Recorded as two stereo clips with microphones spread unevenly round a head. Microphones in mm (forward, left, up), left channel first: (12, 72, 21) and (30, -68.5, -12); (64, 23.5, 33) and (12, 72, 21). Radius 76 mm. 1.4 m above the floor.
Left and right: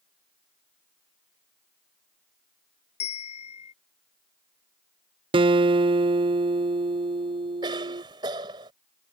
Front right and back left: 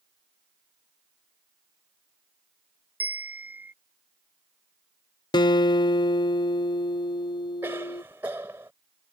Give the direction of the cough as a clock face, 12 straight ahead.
5 o'clock.